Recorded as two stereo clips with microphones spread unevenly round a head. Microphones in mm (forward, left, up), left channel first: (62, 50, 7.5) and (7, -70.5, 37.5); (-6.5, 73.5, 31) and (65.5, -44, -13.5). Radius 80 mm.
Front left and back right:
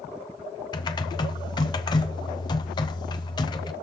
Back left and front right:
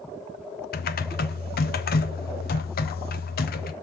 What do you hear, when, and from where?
0.7 s typing on a keyboard: 110° left, 0.8 m